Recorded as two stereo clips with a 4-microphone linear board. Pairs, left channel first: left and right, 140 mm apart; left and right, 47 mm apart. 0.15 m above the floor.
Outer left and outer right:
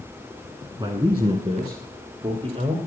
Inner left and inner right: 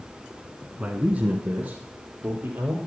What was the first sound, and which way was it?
A man speaking, 30° right (ahead or behind).